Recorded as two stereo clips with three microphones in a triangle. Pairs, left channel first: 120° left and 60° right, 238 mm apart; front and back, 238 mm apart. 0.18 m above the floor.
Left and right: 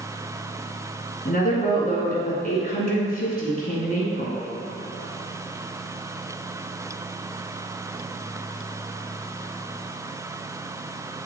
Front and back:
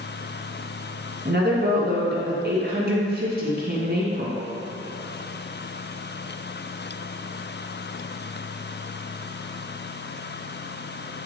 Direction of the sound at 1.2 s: 155° left.